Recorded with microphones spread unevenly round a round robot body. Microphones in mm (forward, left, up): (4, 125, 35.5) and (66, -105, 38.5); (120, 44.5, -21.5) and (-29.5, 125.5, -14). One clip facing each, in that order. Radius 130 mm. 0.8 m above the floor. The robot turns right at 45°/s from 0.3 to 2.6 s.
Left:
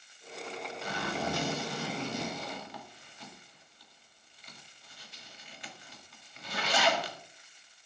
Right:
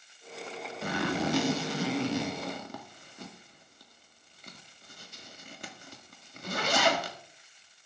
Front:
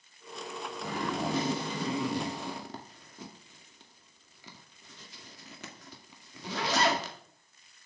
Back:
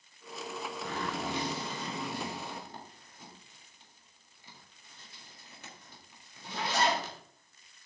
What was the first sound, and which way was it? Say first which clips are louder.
A zipper: right 6 dB, front 5 dB; 115° right.